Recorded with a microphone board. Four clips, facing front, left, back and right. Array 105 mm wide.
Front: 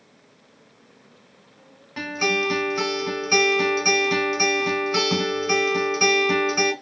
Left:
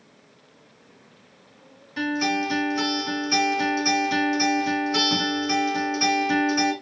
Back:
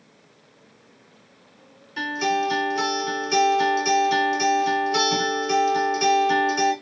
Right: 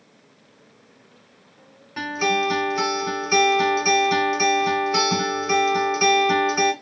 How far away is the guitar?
About 2 m.